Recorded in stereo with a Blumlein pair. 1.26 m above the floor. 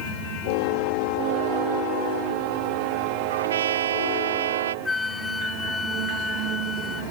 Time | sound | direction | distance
3.3 | a trumpet | 65° right | ?
4.8 | a flute | 10° left | ?